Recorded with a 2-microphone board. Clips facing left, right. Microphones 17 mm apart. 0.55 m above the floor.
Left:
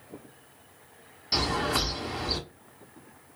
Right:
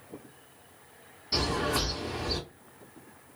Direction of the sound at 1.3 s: 35° left (ahead or behind).